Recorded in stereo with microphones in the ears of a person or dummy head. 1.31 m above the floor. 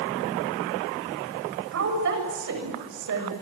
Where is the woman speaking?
60° right (ahead or behind), 7.5 m.